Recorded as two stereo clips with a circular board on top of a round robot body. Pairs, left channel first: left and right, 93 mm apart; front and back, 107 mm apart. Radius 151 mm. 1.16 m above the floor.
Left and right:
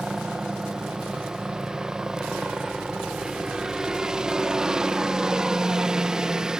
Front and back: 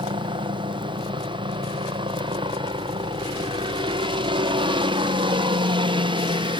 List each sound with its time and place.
0.0 s a helicopter: 170° right